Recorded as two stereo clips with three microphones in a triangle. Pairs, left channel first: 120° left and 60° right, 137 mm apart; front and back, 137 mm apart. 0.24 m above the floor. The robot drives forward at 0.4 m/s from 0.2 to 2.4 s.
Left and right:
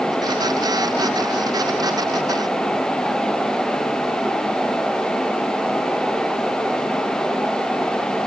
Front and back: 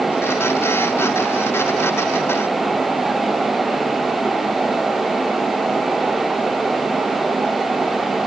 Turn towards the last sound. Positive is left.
No sound to turn to.